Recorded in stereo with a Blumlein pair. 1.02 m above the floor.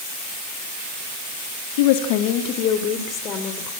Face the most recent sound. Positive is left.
turn(degrees=30)